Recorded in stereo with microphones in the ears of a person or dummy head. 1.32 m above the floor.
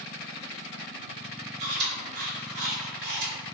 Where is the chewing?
55° right (ahead or behind), 1.2 m.